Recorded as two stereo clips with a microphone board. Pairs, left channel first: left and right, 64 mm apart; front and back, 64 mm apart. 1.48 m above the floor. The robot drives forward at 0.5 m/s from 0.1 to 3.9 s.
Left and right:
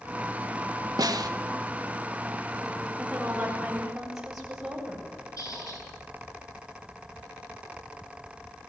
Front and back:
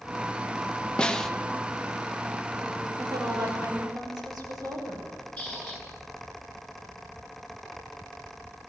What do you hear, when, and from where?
1.0 s a snare drum: 75° right, 1.1 m; by 1.3 s 85° right, 1.0 m
3.0 s a woman speaking: 175° right, 7 m
5.4 s a squeak: 75° left, 8.5 m